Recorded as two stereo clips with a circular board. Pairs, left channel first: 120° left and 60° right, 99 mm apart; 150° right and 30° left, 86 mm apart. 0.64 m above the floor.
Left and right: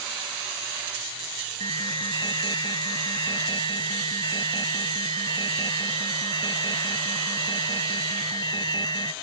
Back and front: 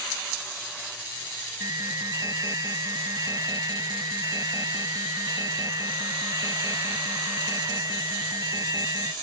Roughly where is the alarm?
Left.